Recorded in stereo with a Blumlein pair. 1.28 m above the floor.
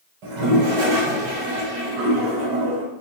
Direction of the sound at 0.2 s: 45° right.